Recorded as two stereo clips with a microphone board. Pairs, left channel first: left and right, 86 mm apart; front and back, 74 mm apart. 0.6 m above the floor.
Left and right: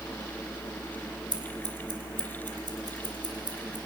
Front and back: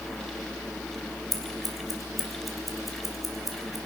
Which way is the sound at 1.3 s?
90° right.